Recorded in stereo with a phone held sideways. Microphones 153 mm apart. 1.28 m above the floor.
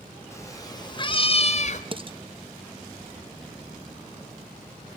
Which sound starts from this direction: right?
Dishes clattering, at 1.9 s.